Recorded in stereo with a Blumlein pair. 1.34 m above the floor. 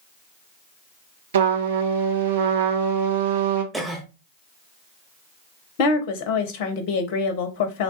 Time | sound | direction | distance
1.3 | a trumpet | 60° right | 0.7 m
3.7 | a cough | 5° right | 0.9 m
5.8 | a woman speaking | 45° left | 0.6 m